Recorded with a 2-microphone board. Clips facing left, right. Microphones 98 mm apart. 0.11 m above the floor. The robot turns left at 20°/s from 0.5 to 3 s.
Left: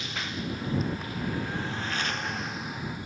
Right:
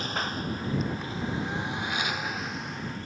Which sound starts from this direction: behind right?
A lawn mower, at 0.0 s.